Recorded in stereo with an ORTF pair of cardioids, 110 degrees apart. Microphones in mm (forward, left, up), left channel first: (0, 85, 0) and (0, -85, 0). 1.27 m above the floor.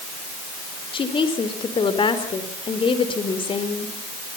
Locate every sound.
0.9 s a woman speaking: 30° left, 4 m